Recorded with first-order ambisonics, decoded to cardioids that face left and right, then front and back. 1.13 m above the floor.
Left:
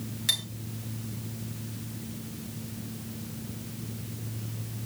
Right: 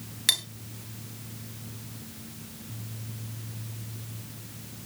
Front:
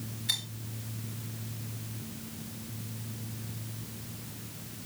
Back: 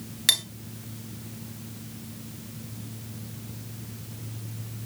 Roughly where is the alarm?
No alarm in this recording.